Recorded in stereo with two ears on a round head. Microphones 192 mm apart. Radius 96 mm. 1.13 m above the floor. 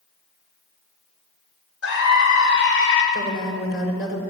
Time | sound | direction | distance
1.8 | a scream | 65° left (ahead or behind) | 6 m
3.1 | a woman speaking | 50° left (ahead or behind) | 6 m